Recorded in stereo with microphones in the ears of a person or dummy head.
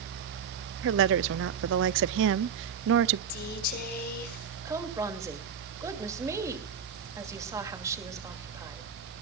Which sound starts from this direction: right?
A woman speaking, at 0.8 s.